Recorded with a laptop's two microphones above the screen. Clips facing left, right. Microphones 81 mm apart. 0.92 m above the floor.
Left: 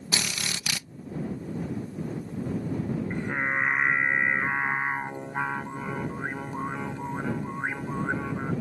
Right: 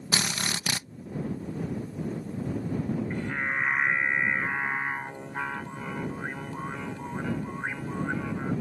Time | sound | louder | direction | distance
0.1 | a drill | right 2 dB | 35° right (ahead or behind) | ?
3.1 | singing | left 2 dB | 20° left (ahead or behind) | ?